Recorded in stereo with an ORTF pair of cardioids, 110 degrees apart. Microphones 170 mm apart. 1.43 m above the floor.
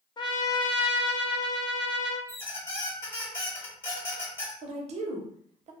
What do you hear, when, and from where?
0.2 s a trumpet: 25° left, 0.5 m
2.3 s a squeak: 15° left, 1.1 m
4.6 s a woman speaking: 45° right, 0.6 m